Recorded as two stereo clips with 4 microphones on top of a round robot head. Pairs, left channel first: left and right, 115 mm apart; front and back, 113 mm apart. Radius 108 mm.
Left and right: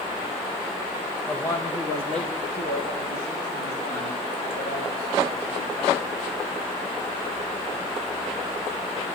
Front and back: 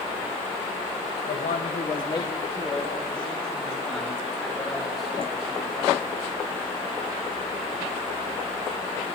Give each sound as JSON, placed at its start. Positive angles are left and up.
{"t": 1.3, "sound": "a man speaking", "azimuth_deg": 5, "distance_m": 0.9}